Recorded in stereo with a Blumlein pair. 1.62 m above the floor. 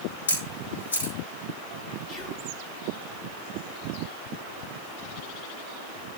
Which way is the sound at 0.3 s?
70° left.